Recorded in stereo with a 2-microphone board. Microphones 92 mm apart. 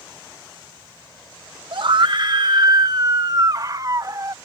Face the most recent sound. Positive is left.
turn(degrees=-40)  # may be behind; listen again after turning